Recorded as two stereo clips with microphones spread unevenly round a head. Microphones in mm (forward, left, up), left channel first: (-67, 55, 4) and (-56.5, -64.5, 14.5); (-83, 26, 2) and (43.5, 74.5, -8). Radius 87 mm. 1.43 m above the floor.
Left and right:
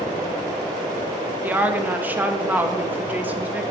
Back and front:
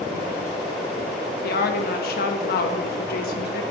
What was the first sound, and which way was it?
A woman speaking, 160° right.